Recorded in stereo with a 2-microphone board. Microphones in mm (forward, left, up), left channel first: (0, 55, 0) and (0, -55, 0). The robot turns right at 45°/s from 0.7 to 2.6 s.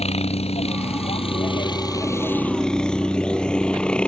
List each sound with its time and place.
0.0 s a helicopter: 70° left (ahead or behind); by 4.1 s 10° left (ahead or behind)